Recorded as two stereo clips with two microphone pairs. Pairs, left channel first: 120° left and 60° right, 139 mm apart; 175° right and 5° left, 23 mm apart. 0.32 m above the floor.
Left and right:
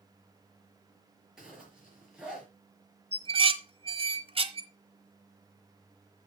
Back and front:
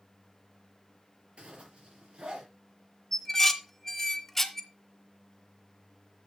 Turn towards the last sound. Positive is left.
turn(degrees=-100)